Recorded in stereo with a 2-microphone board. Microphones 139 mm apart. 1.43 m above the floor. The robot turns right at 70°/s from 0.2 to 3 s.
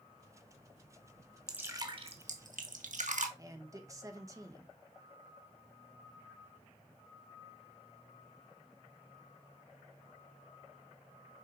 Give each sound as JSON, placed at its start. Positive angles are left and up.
{"t": 1.5, "sound": "dripping", "side_deg": -5, "distance_m": 1.4}
{"t": 3.4, "sound": "a man speaking", "side_deg": -25, "distance_m": 1.6}